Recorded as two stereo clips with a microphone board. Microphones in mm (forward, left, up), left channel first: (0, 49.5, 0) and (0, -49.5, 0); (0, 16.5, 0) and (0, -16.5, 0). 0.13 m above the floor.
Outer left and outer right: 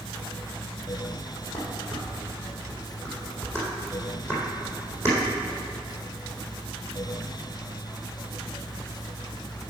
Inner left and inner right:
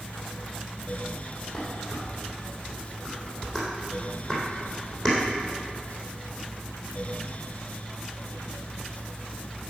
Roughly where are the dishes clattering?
Left.